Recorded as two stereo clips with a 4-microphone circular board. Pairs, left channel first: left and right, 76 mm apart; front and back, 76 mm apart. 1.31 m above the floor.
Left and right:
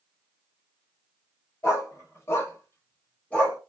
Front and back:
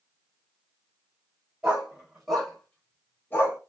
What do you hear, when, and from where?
1.6 s a dog barking: 110° left, 1.3 m; by 3.6 s 25° left, 1.3 m